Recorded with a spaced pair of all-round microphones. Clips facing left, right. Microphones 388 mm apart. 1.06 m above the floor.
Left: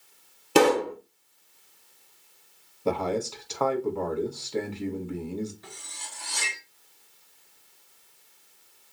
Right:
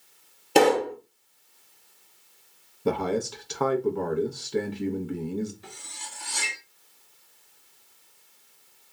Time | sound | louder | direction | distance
0.6 | a pop | even | 15° left (ahead or behind) | 0.6 m
2.9 | a man speaking | right 1 dB | 25° right (ahead or behind) | 0.6 m
5.6 | cutlery clinking | right 1 dB | 45° right (ahead or behind) | 1.1 m